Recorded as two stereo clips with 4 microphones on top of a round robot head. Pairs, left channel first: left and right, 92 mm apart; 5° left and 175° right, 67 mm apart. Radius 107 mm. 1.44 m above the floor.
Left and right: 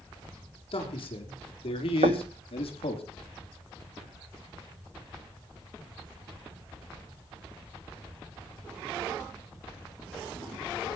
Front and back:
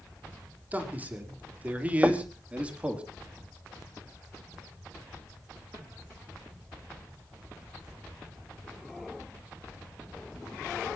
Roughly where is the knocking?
Right.